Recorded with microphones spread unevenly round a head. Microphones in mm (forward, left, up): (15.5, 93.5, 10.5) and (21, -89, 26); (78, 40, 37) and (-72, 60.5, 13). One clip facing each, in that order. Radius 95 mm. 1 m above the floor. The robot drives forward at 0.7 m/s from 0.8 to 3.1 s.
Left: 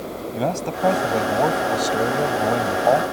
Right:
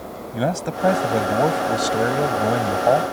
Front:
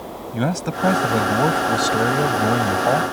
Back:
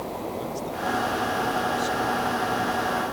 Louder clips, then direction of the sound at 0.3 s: Right 1 dB, front 7 dB; 10° right.